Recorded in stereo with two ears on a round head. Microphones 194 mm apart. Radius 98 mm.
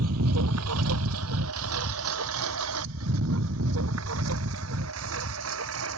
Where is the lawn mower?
75° right (ahead or behind); by 6.0 s 65° right (ahead or behind).